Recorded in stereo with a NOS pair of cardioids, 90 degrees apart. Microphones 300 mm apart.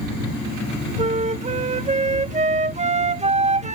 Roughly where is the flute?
Ahead right.